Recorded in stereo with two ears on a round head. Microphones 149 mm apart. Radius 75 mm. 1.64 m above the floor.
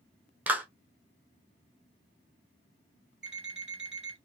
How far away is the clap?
About 0.7 m.